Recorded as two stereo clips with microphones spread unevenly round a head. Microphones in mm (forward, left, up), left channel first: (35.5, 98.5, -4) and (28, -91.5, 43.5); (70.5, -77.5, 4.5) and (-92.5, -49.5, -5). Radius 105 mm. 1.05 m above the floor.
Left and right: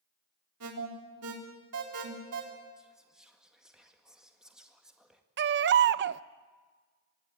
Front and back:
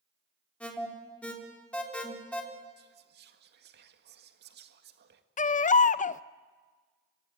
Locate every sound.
0.6 s an alarm: 95° right, 4 m
2.8 s whispering: 175° left, 1.7 m
5.4 s a baby crying: 55° right, 0.6 m